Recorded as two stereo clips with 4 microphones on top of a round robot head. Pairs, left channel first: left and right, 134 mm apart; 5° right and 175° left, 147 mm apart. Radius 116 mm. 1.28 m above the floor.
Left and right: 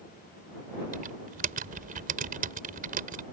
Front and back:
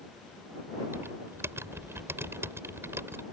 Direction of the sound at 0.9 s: 105° right.